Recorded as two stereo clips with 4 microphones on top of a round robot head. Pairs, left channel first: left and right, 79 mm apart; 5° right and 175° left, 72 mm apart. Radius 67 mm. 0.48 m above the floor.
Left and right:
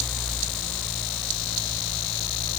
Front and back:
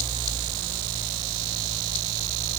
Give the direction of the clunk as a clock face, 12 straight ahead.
I don't hear a clunk.